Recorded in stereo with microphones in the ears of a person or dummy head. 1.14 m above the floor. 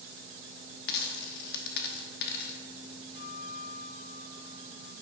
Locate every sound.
0.9 s a dropped coin: 55° left (ahead or behind), 0.9 m
3.1 s a guitar: 60° left (ahead or behind), 2.5 m